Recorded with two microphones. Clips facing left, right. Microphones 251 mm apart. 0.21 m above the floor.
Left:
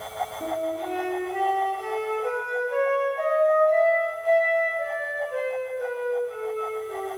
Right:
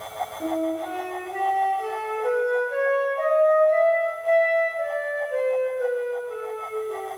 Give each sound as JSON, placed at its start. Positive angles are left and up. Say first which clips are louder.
{"t": 0.4, "sound": "a flute", "louder": "right 5 dB", "side_deg": -25, "distance_m": 1.1}